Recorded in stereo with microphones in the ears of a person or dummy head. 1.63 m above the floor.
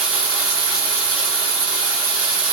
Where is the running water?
5° right (ahead or behind), 1.1 m.